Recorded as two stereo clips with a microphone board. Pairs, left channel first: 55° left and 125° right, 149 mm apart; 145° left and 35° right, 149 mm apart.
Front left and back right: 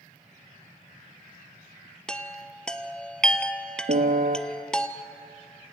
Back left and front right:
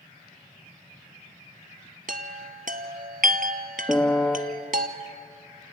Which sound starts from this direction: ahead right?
A chime, at 2.1 s.